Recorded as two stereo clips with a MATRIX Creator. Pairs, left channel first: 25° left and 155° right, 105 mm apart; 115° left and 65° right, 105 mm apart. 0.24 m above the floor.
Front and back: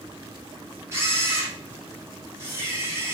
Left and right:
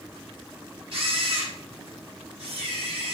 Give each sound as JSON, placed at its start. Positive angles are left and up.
{"t": 0.9, "sound": "a camera shutter", "azimuth_deg": -95, "distance_m": 4.0}